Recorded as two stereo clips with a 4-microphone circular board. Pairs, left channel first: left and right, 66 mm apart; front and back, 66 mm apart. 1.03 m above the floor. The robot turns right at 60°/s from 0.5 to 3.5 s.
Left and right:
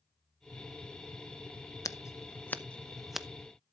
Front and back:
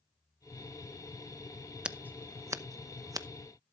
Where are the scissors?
105° left, 0.7 m; by 3.3 s 170° right, 0.7 m.